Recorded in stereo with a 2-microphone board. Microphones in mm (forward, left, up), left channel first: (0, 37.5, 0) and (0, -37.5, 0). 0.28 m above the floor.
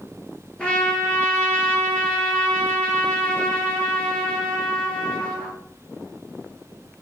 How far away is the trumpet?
About 1.9 m.